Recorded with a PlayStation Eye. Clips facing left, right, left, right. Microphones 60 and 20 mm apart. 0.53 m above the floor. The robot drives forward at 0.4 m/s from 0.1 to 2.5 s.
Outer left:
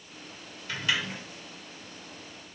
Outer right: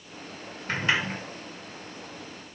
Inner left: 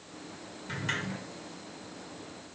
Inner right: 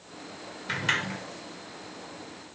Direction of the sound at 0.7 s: 40° right (ahead or behind).